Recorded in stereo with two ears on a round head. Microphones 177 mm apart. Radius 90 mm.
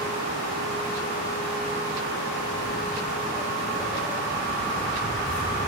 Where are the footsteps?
45° right (ahead or behind), 3.5 m; by 5.7 s 15° right (ahead or behind), 7.5 m.